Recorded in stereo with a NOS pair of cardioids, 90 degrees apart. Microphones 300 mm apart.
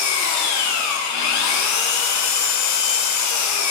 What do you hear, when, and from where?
0.0 s an engine running: 70° left, 0.9 m